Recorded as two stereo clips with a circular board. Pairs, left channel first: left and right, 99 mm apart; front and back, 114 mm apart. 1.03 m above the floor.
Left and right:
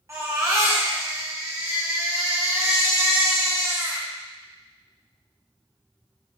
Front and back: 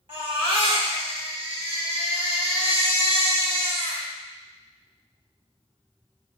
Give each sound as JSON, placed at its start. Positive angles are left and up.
{"t": 0.1, "sound": "a baby crying", "azimuth_deg": -145, "distance_m": 2.0}